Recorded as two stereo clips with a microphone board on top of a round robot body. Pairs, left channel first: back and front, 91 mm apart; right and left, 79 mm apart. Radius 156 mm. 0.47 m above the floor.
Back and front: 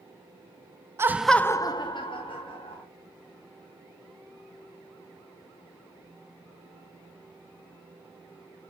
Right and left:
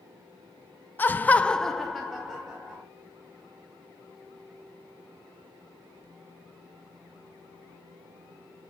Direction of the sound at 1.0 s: 40° right.